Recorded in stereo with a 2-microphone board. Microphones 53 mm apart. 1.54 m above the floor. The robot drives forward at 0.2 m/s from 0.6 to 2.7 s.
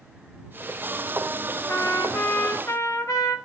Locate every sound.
1.7 s a trumpet: 70° left (ahead or behind), 0.5 m; by 3.4 s 65° left (ahead or behind), 0.5 m